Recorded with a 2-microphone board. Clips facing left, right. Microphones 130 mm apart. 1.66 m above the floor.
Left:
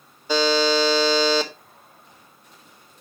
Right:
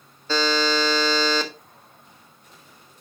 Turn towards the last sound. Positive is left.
turn(degrees=15)  # may be behind; listen again after turning